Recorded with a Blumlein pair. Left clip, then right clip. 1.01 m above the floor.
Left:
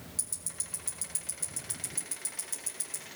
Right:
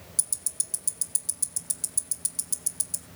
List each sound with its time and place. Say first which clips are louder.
0.2 s ticking: right 7 dB; 25° right, 1.4 m